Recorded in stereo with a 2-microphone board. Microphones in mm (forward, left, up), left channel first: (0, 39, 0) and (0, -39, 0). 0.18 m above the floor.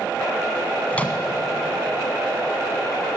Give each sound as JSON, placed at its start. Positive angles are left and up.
{"t": 0.9, "sound": "a microwave", "side_deg": 20, "distance_m": 1.0}